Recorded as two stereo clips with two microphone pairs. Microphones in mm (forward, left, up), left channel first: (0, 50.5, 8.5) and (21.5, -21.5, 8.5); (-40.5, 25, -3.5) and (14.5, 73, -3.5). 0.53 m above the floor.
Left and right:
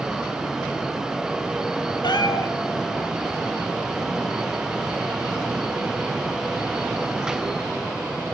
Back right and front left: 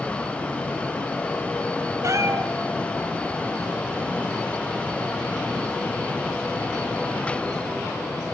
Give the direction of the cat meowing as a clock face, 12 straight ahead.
9 o'clock.